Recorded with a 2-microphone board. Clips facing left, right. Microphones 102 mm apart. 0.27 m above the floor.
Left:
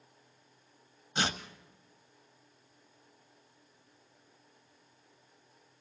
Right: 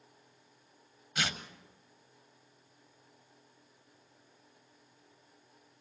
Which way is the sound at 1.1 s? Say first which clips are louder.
Left 3 dB; 30° left (ahead or behind).